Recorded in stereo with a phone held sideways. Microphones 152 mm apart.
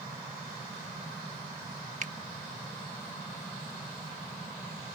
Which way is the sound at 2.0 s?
50° right (ahead or behind).